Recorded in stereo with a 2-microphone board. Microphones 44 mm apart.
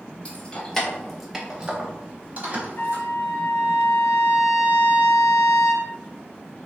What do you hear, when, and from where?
0.2 s keys jangling: 30° left (ahead or behind), 0.9 m; by 3.0 s 50° right (ahead or behind), 1.3 m
2.8 s a trumpet: 70° left (ahead or behind), 1.2 m